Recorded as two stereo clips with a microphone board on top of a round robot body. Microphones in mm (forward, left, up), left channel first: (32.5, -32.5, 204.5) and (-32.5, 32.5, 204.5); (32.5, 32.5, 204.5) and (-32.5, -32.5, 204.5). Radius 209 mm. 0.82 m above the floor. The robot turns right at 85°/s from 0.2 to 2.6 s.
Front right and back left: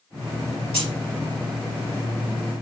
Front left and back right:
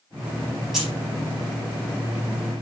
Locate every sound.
0.7 s keys jangling: 135° left, 4.5 m; by 0.9 s 150° left, 4.5 m